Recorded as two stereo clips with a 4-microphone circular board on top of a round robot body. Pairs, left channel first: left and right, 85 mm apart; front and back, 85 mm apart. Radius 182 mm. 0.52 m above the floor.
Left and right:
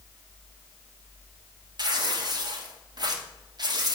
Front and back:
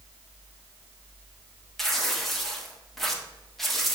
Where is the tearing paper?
85° right, 1.9 m.